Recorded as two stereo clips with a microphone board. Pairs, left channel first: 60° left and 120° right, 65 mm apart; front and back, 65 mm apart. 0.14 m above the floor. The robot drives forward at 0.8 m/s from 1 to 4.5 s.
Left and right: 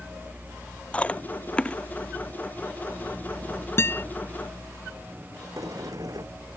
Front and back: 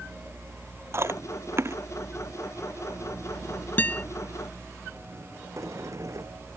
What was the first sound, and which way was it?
Chewing, 130° left.